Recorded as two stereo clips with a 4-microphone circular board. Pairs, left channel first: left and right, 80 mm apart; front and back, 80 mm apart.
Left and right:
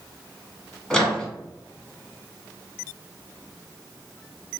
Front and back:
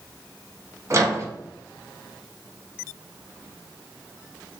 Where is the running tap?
I don't hear a running tap.